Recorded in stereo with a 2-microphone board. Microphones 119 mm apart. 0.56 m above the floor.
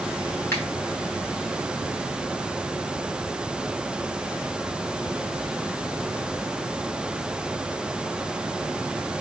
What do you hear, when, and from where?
0.5 s a finger snap: 20° left (ahead or behind), 4 m